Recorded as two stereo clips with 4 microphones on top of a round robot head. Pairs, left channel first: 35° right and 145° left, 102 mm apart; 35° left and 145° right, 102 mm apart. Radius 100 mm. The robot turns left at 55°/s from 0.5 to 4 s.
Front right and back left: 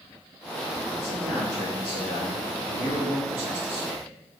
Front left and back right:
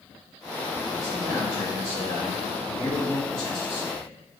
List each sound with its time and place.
1.0 s a man speaking: 125° right, 1.3 m; by 4.1 s 70° left, 1.3 m